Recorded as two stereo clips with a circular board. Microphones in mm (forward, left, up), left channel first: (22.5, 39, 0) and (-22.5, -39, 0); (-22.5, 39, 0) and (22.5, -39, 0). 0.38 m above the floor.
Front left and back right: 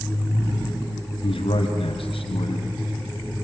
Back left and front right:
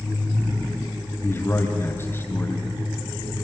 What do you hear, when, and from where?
1.2 s a man speaking: 55° left, 2.5 m